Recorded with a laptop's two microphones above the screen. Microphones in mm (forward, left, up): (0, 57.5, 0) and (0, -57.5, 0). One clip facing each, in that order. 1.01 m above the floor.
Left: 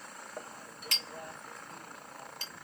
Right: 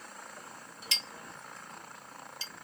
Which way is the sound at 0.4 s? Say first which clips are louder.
Left 3 dB; 50° left (ahead or behind).